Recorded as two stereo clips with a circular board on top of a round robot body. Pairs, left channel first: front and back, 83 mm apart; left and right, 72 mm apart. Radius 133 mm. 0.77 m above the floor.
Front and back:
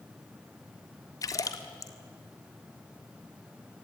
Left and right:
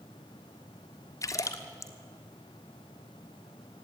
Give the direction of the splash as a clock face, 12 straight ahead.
10 o'clock.